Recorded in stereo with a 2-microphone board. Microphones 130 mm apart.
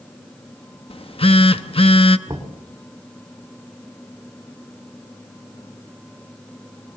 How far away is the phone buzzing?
About 0.7 m.